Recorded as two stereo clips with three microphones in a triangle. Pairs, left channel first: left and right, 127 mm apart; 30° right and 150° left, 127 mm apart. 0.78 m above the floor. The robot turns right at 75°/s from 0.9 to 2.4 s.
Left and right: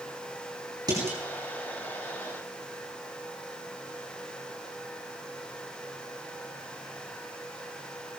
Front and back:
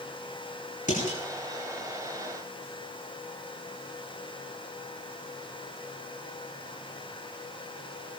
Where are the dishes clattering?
30° right, 5.5 m; by 1.2 s 10° right, 5.5 m.